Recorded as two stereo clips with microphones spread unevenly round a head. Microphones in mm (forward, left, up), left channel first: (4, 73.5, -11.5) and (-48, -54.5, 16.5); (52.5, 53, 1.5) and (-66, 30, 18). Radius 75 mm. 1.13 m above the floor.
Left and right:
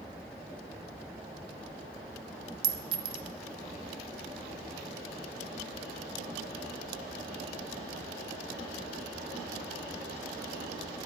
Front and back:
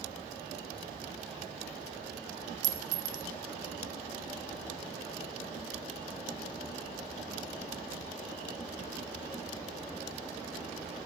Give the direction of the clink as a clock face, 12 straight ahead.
5 o'clock.